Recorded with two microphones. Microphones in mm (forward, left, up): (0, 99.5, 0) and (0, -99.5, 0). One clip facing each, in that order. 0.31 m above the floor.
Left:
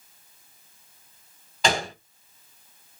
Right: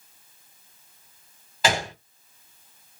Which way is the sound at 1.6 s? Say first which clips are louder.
Even; 5° right (ahead or behind).